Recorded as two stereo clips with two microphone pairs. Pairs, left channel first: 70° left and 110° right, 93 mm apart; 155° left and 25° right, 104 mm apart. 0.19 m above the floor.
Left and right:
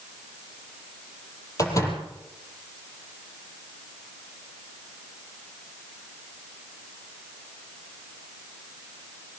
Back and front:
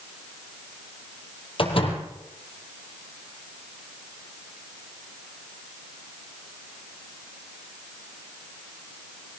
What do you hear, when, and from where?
1.6 s a door slam: 125° left, 5 m